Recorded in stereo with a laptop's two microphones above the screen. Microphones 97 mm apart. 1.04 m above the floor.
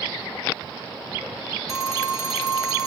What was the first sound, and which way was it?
A phone ringing, centre (ahead or behind).